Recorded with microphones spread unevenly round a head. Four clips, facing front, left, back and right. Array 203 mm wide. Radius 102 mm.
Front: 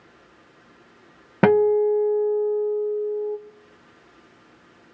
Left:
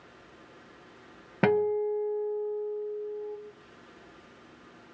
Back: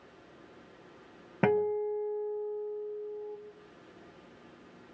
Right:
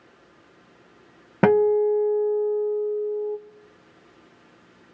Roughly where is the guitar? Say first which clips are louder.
Right 8 dB, front 11 dB; ahead right.